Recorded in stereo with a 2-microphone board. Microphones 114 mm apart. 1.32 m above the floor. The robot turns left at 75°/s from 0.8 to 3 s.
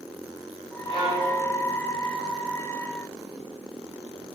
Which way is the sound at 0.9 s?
120° right.